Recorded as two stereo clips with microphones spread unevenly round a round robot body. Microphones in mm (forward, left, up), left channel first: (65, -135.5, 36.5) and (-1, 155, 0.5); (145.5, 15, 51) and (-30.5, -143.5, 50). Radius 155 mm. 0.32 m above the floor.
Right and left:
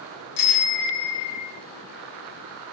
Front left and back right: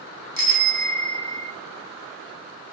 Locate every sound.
0.4 s a bicycle bell: 85° right, 4.5 m; by 1.5 s 75° right, 4 m